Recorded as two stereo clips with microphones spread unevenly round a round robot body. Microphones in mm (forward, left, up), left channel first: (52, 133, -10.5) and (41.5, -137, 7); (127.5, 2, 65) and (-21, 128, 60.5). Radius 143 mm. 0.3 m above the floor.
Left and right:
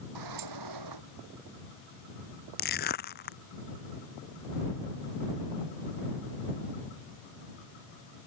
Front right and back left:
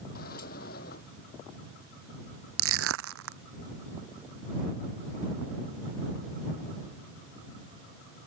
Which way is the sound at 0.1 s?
95° right.